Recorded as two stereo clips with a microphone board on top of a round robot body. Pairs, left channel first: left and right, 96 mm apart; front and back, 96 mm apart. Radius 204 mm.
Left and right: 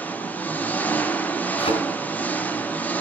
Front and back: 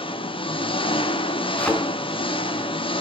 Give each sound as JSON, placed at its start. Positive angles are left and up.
{"t": 0.0, "sound": "an engine running", "azimuth_deg": 15, "distance_m": 1.8}
{"t": 1.6, "sound": "a thud", "azimuth_deg": 80, "distance_m": 4.0}